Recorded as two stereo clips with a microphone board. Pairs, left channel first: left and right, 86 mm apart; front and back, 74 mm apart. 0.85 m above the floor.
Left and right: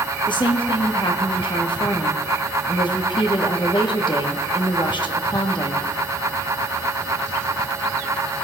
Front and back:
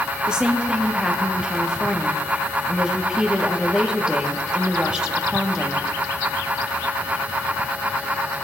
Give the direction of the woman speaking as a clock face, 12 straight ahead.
9 o'clock.